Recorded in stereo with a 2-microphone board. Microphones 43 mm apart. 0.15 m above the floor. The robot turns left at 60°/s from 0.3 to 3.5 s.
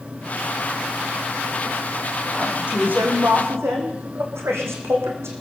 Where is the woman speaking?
15° right, 7.5 m; by 5.4 s 85° right, 7.5 m.